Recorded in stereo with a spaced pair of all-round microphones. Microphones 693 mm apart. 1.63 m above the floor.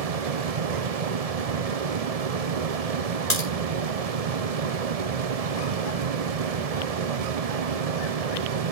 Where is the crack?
55° left (ahead or behind), 5 m.